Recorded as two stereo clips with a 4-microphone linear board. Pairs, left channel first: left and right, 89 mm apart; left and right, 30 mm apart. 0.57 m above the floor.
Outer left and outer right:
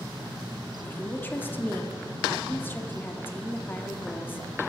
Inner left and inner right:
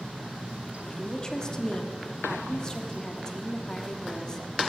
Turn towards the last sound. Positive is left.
turn(degrees=20)  # may be behind; listen again after turning